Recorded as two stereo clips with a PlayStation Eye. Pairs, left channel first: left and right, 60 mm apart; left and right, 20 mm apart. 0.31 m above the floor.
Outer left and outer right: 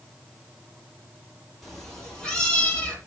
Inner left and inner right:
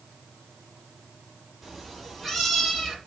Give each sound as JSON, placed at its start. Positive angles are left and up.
{"t": 1.6, "sound": "a cat meowing", "side_deg": 5, "distance_m": 3.5}